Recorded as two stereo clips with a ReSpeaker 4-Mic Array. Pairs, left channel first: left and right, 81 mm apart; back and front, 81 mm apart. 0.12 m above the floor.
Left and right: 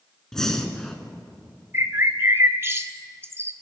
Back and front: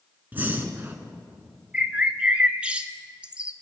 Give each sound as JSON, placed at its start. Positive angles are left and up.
{"t": 0.3, "sound": "breathing", "azimuth_deg": 20, "distance_m": 1.3}
{"t": 1.7, "sound": "a bird", "azimuth_deg": -65, "distance_m": 0.6}